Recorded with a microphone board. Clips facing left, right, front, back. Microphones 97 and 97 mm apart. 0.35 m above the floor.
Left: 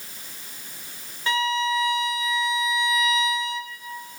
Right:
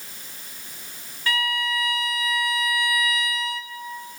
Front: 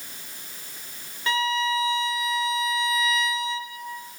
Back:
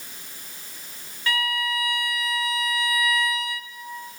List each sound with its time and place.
1.3 s a violin: 45° left, 1.2 m